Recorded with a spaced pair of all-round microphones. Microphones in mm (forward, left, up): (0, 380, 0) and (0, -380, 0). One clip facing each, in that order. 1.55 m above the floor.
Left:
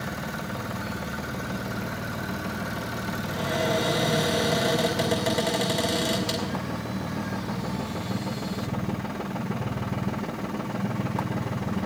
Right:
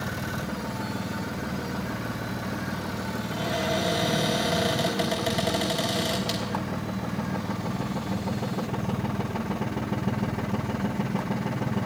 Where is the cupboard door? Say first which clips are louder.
Left 3 dB; 65° left (ahead or behind), 3 m.